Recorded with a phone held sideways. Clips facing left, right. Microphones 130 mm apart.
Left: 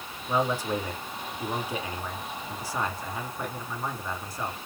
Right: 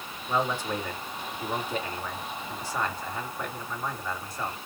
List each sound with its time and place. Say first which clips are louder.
0.3 s a man speaking: left 2 dB; 10° left (ahead or behind), 2.5 m